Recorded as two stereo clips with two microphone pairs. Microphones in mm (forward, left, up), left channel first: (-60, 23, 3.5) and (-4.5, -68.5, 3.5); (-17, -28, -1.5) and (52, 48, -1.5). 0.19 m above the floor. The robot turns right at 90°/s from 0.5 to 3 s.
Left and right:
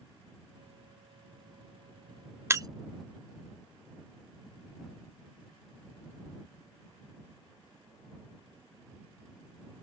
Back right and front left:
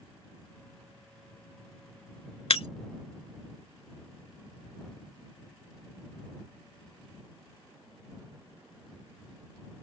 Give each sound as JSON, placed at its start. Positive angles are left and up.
{"t": 2.5, "sound": "breaking glass", "azimuth_deg": -120}